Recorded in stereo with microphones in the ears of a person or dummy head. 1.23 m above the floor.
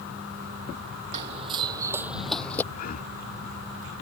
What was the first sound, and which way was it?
Running footsteps, 45° right (ahead or behind).